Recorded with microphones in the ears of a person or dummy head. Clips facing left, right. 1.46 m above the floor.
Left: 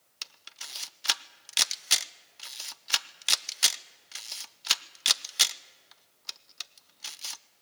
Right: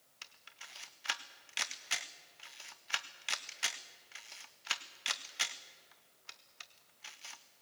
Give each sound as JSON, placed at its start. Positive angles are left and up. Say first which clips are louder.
{"t": 0.2, "sound": "a camera shutter", "louder": "left 6 dB", "side_deg": 60, "distance_m": 0.6}